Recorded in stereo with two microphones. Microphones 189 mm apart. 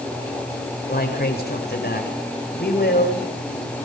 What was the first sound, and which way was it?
A man speaking, 55° left (ahead or behind).